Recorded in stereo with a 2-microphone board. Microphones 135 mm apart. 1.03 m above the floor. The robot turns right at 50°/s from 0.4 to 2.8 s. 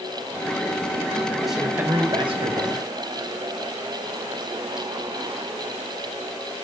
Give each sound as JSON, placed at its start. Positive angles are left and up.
{"t": 1.5, "sound": "a man speaking", "azimuth_deg": 180, "distance_m": 3.5}